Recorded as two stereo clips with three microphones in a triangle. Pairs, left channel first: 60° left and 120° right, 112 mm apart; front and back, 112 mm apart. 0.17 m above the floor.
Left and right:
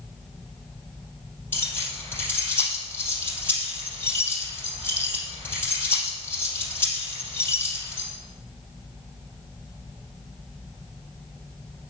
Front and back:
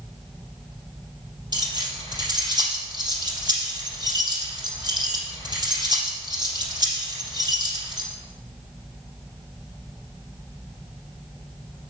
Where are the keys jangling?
130° left, 3.5 m.